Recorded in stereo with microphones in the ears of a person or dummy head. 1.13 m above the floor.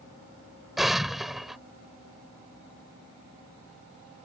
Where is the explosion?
5° right (ahead or behind).